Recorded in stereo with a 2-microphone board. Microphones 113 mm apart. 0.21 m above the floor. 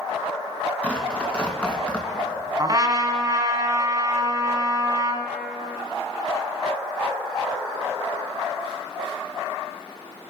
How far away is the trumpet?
About 1.6 m.